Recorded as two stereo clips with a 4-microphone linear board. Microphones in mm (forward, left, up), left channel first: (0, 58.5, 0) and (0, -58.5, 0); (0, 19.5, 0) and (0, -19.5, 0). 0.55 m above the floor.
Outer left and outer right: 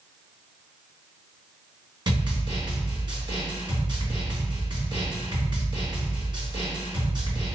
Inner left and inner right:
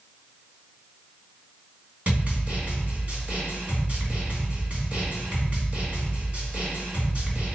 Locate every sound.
2.1 s a snare drum: 40° right (ahead or behind), 3 m